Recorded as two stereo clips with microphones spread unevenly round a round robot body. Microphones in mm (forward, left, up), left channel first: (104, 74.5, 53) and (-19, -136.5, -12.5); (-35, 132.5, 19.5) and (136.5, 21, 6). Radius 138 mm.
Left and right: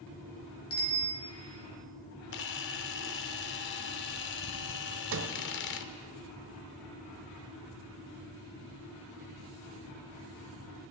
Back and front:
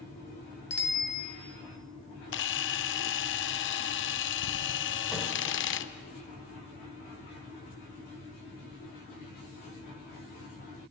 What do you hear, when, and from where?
0.7 s a bicycle bell: 120° left, 2 m
2.3 s a camera shutter: 115° left, 0.5 m
5.1 s a sliding door: 125° right, 0.9 m